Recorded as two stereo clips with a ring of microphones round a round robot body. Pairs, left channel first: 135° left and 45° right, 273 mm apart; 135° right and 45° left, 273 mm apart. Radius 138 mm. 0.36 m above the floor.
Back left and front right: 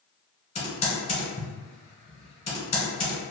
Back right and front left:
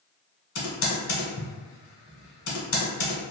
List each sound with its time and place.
0.6 s typing on a keyboard: 160° right, 1.2 m